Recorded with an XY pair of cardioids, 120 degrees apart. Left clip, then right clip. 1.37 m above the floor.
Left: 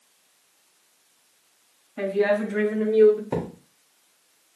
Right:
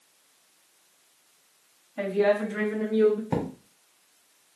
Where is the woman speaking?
20° left, 3 m; by 3.2 s 15° left, 1.4 m.